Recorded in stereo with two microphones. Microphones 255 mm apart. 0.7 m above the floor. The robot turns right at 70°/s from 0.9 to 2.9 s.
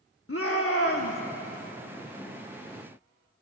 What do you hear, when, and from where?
0.3 s a shout: 60° left (ahead or behind), 1.0 m; by 1.2 s 50° left (ahead or behind), 1.0 m